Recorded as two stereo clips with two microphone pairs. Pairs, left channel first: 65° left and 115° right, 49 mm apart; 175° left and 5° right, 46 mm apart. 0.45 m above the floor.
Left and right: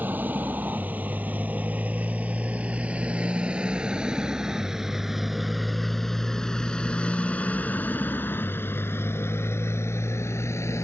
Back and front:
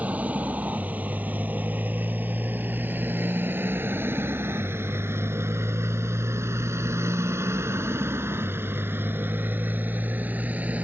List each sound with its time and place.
0.0 s a motorcycle: 65° right; by 10.8 s 50° left